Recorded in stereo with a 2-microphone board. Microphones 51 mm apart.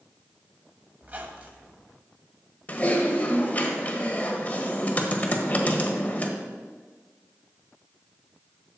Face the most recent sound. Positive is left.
turn(degrees=30)  # may be behind; listen again after turning